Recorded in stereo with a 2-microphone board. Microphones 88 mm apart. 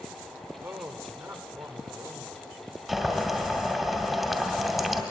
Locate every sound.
0.6 s a man speaking: 30° right (ahead or behind), 1.5 m
2.9 s boiling: 5° right (ahead or behind), 1.8 m